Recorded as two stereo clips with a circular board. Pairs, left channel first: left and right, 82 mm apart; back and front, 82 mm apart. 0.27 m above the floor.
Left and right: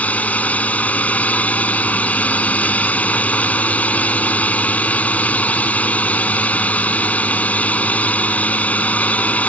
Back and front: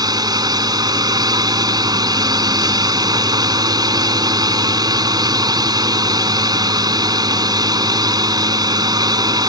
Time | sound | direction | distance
0.0 | a drone | 20° left | ?